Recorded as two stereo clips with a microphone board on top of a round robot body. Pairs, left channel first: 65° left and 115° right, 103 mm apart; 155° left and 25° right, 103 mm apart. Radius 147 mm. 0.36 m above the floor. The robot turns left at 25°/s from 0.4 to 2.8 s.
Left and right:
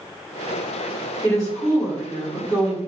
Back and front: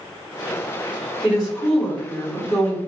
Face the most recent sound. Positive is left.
turn(degrees=-145)